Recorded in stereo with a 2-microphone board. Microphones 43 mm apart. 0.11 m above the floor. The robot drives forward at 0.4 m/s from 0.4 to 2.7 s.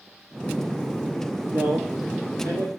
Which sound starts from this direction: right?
A man speaking, at 1.5 s.